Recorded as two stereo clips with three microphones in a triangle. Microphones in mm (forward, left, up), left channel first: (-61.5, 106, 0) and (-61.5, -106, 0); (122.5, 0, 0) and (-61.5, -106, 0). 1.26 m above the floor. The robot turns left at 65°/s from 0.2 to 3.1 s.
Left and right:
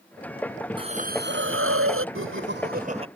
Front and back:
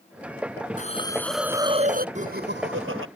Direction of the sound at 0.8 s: 20° right.